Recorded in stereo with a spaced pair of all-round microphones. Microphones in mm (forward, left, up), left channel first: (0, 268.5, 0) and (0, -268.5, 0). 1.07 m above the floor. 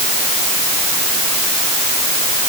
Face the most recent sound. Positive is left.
No sound to turn to.